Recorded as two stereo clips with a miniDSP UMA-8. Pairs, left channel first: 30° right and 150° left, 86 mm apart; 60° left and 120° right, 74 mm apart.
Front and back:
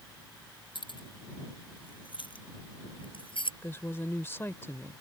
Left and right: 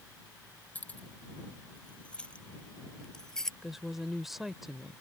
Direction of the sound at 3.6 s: 35° right.